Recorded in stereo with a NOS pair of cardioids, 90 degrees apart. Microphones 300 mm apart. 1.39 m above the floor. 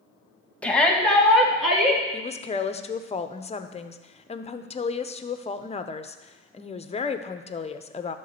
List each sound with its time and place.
0.6 s a shout: 5° left, 1.8 m; by 2.0 s straight ahead, 3 m
2.1 s a woman speaking: 20° left, 0.8 m